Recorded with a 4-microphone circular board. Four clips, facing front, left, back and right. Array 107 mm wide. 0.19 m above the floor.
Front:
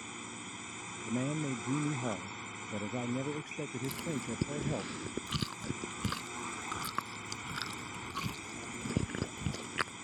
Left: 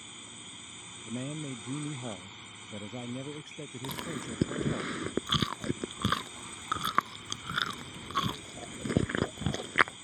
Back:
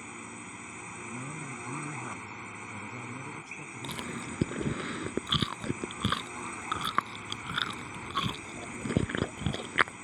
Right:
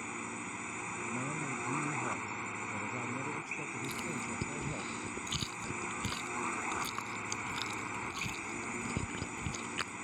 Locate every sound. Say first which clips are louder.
0.0 s a drone: right 10 dB, back 2 dB; 100° right
1.1 s a man speaking: left 3 dB, front 8 dB; 15° left
3.8 s chewing: left 3 dB, back 1 dB; 125° left